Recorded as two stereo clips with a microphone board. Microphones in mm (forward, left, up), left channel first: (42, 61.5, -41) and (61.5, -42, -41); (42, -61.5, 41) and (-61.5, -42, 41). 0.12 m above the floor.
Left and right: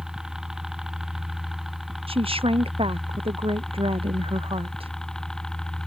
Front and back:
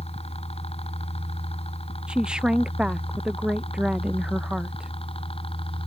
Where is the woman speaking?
110° right.